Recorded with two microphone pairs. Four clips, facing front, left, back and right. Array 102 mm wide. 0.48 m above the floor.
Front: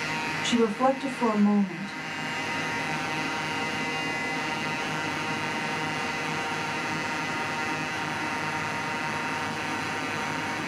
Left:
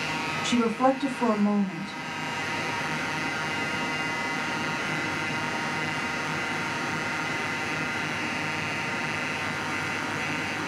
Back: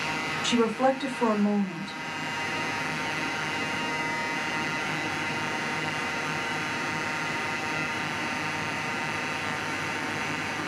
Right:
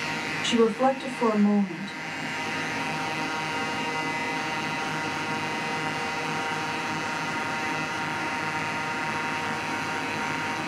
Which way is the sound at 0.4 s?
135° right.